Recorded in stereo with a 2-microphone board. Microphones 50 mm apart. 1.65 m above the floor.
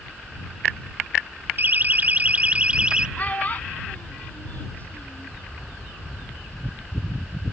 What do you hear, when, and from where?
1.6 s a siren: 45° right (ahead or behind); by 3.1 s 20° right (ahead or behind)
3.2 s a child speaking: 35° left (ahead or behind)